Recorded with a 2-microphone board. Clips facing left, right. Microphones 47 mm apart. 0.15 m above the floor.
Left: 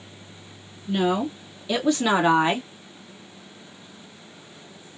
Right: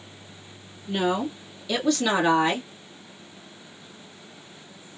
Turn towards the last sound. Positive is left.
turn(degrees=25)  # may be behind; listen again after turning